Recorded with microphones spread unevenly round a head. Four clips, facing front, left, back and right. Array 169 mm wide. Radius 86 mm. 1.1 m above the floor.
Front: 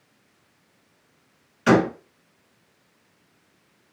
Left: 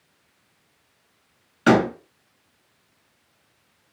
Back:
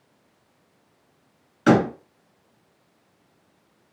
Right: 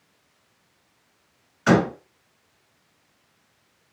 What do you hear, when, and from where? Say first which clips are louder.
1.7 s a door slam: left 2 dB, even; 125° left, 1.6 m